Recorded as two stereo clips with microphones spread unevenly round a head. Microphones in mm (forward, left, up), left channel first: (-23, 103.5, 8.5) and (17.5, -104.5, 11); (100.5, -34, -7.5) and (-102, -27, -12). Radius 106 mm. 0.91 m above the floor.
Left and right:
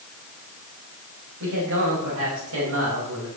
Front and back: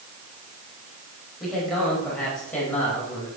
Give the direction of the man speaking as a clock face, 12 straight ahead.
3 o'clock.